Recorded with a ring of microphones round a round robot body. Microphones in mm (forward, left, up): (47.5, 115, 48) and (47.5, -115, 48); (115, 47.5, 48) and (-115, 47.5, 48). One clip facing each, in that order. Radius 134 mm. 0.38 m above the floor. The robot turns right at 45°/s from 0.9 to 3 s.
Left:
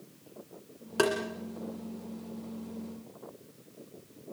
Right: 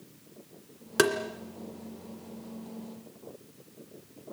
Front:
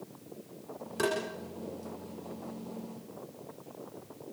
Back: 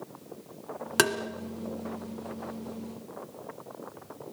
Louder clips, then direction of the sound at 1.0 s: Right 2 dB, back 3 dB; 160° right.